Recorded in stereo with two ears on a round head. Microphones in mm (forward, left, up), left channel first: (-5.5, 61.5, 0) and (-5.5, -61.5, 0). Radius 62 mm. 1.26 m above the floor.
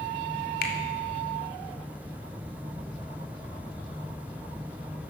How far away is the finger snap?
About 2.5 m.